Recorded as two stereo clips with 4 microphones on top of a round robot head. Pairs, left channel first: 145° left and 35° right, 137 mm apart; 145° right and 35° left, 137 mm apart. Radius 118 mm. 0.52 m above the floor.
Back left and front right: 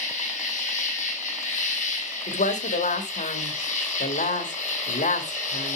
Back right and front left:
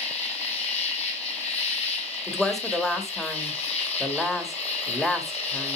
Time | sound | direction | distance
0.0 | an insect | 175° left | 3.5 m
2.3 | a woman speaking | 125° left | 2.0 m